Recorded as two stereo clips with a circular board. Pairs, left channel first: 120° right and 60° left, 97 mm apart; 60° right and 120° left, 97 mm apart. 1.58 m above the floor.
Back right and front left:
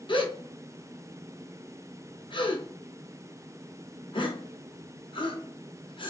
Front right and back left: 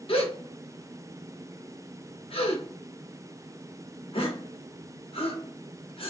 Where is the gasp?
85° right, 0.7 m.